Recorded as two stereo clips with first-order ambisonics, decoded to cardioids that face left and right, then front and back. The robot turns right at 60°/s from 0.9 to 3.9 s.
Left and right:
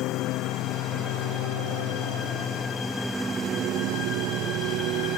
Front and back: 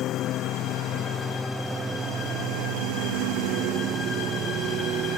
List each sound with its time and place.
0.0 s a lawn mower: 50° left; by 5.2 s 130° right